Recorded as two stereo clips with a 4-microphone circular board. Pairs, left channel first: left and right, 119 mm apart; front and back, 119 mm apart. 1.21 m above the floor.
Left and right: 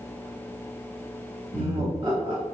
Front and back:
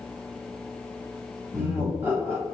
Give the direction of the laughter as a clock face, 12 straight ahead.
4 o'clock.